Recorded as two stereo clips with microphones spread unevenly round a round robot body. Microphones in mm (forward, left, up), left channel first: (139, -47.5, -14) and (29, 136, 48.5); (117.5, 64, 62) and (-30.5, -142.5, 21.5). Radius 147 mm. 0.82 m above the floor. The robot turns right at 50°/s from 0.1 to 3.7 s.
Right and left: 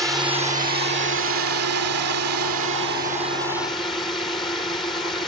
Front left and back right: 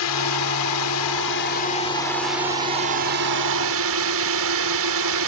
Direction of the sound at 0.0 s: 40° left.